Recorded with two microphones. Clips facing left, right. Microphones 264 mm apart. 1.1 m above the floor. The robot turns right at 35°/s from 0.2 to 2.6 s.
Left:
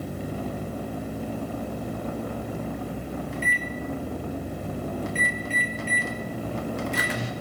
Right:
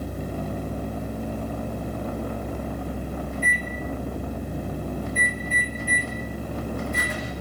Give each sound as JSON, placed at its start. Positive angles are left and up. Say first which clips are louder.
{"t": 3.3, "sound": "a microwave", "louder": "even", "side_deg": 80, "distance_m": 1.8}